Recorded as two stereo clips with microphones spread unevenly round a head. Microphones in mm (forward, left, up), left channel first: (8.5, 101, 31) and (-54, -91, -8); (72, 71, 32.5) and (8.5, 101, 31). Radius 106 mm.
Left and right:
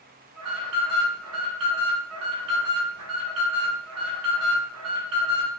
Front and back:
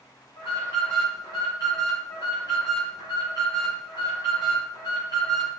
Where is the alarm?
85° right, 1.8 m.